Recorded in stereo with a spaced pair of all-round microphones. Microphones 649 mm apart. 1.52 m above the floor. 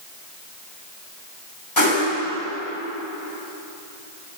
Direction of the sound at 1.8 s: 30° left (ahead or behind).